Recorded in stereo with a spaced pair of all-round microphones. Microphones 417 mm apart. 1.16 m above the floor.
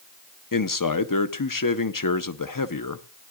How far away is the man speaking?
About 0.7 m.